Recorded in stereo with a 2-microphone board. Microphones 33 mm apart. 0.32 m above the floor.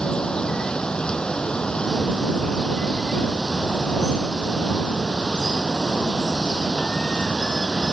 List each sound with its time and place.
0.0 s running water: 25° left (ahead or behind)